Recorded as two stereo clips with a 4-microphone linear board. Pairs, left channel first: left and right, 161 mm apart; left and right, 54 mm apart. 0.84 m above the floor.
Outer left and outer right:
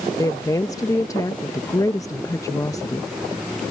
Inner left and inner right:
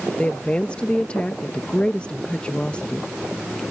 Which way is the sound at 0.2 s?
20° left (ahead or behind).